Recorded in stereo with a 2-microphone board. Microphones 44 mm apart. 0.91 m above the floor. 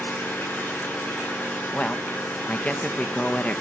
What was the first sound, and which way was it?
An engine running, 80° left.